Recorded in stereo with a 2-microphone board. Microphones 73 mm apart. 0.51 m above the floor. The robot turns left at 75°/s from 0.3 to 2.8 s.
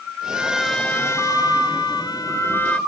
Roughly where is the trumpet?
Behind.